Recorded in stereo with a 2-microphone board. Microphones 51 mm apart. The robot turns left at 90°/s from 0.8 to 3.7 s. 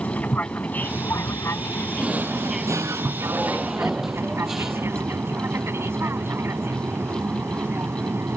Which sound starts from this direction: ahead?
A drawer, at 2.0 s.